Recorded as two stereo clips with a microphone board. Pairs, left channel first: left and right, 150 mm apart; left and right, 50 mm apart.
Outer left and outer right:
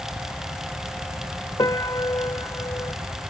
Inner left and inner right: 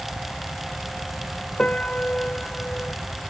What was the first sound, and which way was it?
A piano, 20° left (ahead or behind).